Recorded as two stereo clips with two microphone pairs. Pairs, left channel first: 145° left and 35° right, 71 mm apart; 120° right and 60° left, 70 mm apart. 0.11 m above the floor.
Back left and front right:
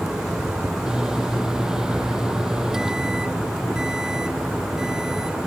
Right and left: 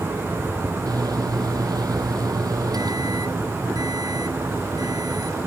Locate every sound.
0.9 s a microwave: 45° left